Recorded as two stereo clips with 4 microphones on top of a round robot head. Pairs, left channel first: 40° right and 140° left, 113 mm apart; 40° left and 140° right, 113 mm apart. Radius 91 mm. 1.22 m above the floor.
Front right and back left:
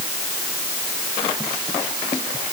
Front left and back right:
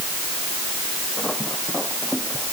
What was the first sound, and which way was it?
Only background noise.